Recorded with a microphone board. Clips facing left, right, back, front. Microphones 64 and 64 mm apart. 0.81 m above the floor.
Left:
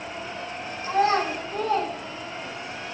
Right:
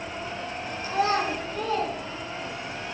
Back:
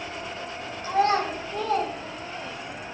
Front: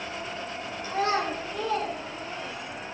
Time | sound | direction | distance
0.8 | a child speaking | 140° left | 5.5 m